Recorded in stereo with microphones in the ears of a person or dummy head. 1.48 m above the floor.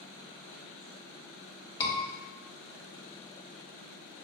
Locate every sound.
1.8 s a scream: 20° left (ahead or behind), 1.0 m